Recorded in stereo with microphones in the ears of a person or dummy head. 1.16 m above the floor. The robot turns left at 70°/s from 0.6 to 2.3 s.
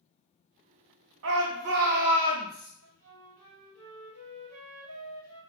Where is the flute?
80° right, 1.5 m.